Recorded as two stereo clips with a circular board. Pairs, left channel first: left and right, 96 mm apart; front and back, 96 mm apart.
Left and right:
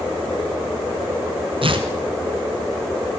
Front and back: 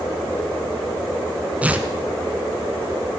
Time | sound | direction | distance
1.6 | tearing paper | 105° right | 1.5 m